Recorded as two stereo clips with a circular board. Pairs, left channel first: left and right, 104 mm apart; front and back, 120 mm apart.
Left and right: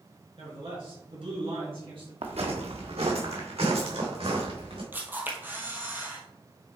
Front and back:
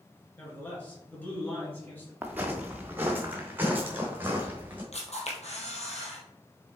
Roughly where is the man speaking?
Right.